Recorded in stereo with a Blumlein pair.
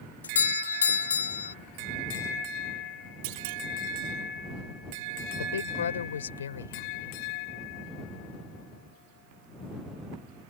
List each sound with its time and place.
0.2 s a doorbell: 70° left
3.2 s a clunk: 45° right
5.4 s a woman speaking: 65° left